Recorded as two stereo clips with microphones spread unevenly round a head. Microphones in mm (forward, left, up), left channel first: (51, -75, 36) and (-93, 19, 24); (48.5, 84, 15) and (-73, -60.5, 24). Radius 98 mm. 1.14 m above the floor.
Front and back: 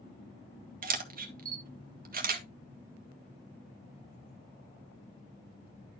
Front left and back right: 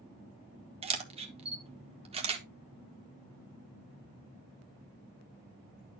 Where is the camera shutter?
170° left, 1.2 m.